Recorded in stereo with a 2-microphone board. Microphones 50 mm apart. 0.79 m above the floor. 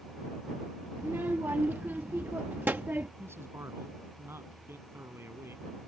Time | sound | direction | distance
1.0 | a child speaking | 50° right (ahead or behind) | ?
3.2 | a man speaking | 65° right (ahead or behind) | ?